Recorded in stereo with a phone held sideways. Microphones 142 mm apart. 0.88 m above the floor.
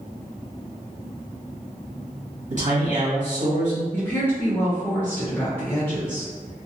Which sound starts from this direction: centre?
A woman speaking, at 3.9 s.